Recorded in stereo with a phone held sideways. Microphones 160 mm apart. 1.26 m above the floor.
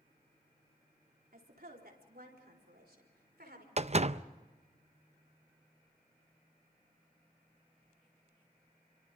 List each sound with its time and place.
1.3 s a woman speaking: 65° right (ahead or behind), 4 m; by 3.7 s 80° right, 5.5 m
3.8 s a door slam: 45° right (ahead or behind), 0.5 m